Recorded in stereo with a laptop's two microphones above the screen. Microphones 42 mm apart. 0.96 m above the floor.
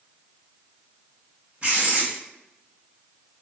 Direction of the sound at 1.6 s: 35° right (ahead or behind).